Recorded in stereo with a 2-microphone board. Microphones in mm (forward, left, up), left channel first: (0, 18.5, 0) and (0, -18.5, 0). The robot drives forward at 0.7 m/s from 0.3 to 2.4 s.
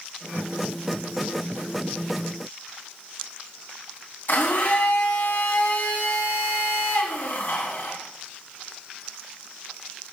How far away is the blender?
About 3.5 m.